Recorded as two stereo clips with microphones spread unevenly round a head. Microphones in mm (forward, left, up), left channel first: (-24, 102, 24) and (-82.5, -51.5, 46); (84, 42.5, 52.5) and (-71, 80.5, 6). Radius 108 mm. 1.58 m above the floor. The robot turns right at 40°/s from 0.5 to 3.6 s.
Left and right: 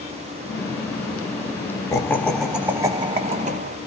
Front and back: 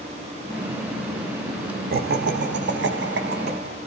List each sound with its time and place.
1.9 s laughter: 145° left, 0.6 m; by 3.8 s 145° right, 0.6 m